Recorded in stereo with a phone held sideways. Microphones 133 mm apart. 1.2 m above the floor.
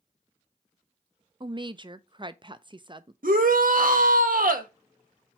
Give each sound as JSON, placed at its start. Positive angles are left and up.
{"t": 1.4, "sound": "a woman speaking", "side_deg": -35, "distance_m": 0.6}
{"t": 3.2, "sound": "a shout", "side_deg": -80, "distance_m": 1.3}